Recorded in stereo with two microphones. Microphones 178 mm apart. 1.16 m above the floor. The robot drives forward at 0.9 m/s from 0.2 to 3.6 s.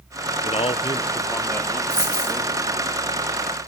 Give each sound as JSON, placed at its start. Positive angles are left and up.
{"t": 0.4, "sound": "a man speaking", "side_deg": 35, "distance_m": 0.6}
{"t": 1.9, "sound": "a dropped coin", "side_deg": 65, "distance_m": 2.5}